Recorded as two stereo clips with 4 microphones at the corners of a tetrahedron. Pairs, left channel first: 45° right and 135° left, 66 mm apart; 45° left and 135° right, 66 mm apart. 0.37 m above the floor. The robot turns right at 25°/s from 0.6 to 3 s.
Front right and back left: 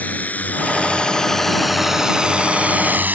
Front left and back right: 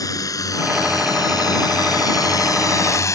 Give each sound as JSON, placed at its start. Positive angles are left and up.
{"t": 0.0, "sound": "a drone", "azimuth_deg": 20}